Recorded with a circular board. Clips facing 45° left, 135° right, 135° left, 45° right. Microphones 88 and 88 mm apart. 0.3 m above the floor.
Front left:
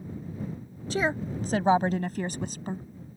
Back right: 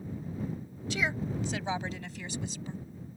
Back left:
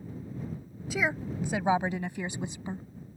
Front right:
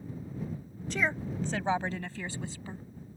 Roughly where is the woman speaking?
Ahead left.